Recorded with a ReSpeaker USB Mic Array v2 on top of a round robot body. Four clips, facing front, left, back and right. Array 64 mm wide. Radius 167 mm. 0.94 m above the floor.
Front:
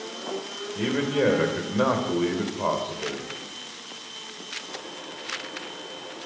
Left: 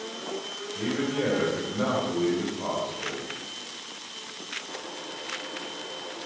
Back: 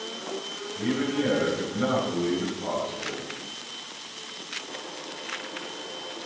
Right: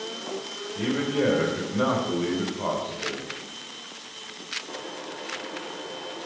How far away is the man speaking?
About 3.5 m.